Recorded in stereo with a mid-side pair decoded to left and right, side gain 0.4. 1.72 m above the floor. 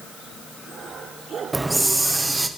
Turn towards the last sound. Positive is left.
turn(degrees=-15)